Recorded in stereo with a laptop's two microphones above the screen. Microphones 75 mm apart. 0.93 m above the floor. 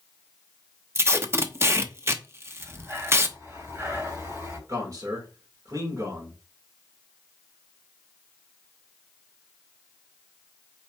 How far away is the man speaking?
About 3.5 m.